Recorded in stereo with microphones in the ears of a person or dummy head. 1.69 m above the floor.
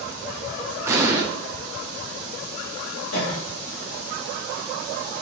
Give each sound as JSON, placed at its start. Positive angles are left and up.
{"t": 0.9, "sound": "an explosion", "side_deg": -15, "distance_m": 1.2}
{"t": 3.1, "sound": "a cough", "side_deg": 75, "distance_m": 2.5}